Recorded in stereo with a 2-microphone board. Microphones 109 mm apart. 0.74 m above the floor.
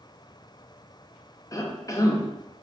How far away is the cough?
About 0.5 m.